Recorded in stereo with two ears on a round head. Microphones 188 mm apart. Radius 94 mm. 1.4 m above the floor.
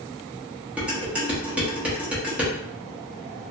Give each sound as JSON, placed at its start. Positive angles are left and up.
{"t": 0.8, "sound": "dishes clattering", "side_deg": -5, "distance_m": 0.9}